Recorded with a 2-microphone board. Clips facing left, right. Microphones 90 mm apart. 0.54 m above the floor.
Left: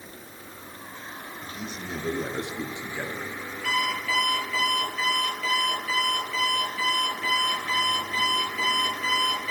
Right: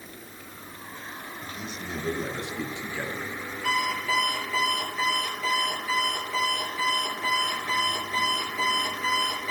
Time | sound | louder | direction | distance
1.4 | a man speaking | left 1 dB | 40° left (ahead or behind) | 1.7 m
3.6 | an alarm clock | right 1 dB | 30° right (ahead or behind) | 5 m